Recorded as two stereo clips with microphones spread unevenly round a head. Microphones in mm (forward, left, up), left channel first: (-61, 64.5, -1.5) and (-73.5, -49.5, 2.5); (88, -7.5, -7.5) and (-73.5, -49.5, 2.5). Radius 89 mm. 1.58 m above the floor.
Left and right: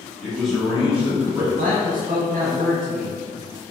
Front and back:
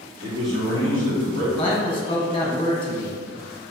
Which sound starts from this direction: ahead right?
A man speaking, at 1.6 s.